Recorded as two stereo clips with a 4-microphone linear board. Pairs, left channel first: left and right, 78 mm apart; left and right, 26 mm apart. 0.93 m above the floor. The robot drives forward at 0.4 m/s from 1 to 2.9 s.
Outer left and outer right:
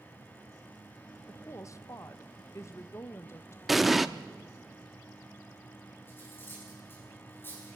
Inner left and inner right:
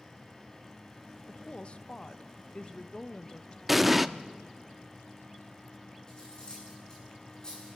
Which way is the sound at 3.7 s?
5° right (ahead or behind).